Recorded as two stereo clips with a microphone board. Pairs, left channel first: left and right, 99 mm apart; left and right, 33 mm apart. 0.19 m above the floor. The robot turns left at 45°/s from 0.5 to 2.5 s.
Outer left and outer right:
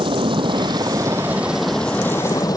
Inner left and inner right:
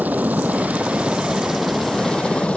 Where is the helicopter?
60° right (ahead or behind); by 2.6 s 40° left (ahead or behind).